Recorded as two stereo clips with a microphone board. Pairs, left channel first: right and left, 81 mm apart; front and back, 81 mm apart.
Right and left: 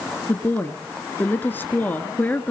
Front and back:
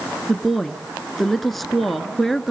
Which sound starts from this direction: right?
A woman speaking, at 0.3 s.